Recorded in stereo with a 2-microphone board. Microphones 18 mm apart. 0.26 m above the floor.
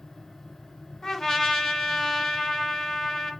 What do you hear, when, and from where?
1.0 s a trumpet: 35° left (ahead or behind), 2 m